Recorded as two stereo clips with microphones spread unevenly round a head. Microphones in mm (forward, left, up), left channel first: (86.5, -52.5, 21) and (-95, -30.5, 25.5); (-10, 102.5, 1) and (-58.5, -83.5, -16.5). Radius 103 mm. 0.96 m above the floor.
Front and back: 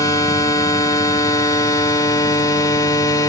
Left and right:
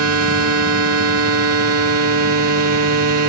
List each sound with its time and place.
0.0 s a machine running: 80° right, 1.5 m